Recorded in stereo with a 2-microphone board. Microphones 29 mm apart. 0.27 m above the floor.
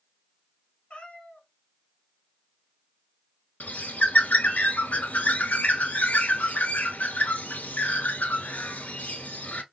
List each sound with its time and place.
0.9 s a cat meowing: 40° left (ahead or behind), 1.1 m
3.6 s a bird: 70° left (ahead or behind), 0.7 m